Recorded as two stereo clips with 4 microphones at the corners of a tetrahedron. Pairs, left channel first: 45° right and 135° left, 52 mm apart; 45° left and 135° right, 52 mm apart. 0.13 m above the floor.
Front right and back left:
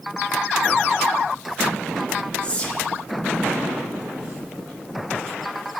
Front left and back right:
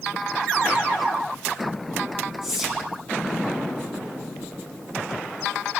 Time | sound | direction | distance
2.4 | whispering | 60° right | 1.1 m